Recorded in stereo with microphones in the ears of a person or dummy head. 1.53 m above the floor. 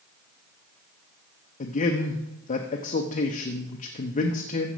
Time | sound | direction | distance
1.6 | a man speaking | 40° left (ahead or behind) | 0.9 m